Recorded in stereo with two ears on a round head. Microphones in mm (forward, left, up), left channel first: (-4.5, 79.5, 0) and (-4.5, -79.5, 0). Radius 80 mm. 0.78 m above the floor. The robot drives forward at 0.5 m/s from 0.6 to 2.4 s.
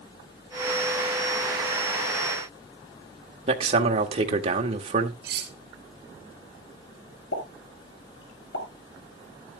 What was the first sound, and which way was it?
A man speaking, 35° right (ahead or behind).